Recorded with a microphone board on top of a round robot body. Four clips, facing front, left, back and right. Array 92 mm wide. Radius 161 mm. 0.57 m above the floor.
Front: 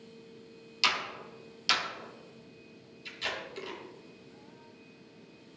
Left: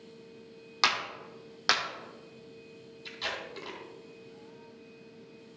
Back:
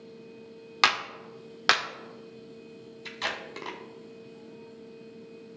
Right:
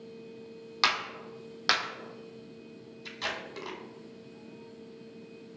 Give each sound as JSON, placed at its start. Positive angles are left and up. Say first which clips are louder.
{"t": 0.8, "sound": "a clap", "louder": "even, back 6 dB", "azimuth_deg": 175, "distance_m": 2.0}
{"t": 3.0, "sound": "tape being pulled", "louder": "right 1 dB, back 3 dB", "azimuth_deg": -170, "distance_m": 2.0}